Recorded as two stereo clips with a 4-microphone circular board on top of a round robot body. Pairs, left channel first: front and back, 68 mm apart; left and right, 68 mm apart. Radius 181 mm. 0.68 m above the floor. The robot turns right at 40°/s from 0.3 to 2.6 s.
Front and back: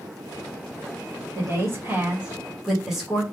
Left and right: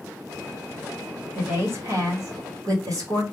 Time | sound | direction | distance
1.4 | a woman speaking | 145° right | 1.2 m